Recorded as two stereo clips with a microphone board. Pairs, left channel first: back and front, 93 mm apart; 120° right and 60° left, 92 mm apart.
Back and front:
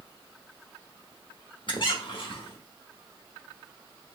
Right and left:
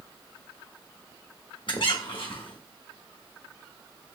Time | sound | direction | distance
1.7 | a squeak | 150° right | 1.1 m